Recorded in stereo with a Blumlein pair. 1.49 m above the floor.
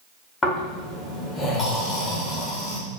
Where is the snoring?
15° left, 0.7 m.